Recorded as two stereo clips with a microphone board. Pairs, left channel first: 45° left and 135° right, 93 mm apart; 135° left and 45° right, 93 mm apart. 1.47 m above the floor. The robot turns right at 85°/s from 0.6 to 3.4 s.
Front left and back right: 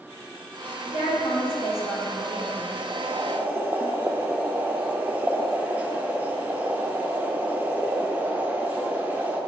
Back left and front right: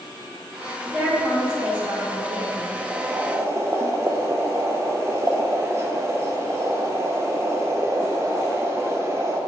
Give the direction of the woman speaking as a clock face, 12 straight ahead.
11 o'clock.